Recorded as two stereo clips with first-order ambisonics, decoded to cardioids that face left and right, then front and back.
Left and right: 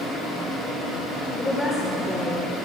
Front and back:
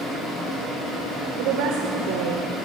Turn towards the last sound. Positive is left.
turn(degrees=170)